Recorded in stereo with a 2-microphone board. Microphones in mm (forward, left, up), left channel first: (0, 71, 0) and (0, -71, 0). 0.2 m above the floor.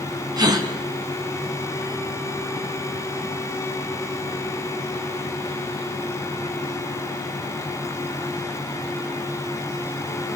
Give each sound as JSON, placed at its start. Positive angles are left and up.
{"t": 0.4, "sound": "a gasp", "side_deg": -30, "distance_m": 2.0}